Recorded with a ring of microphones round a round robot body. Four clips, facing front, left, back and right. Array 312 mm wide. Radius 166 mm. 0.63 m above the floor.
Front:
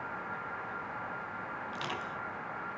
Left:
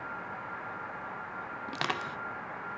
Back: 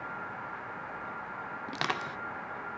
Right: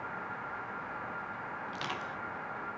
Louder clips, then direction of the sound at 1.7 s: Left 7 dB, back 7 dB; 140° left.